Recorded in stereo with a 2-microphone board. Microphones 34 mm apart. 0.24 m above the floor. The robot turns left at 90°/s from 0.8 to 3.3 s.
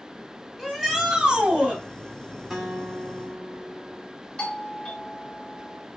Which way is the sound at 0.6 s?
10° right.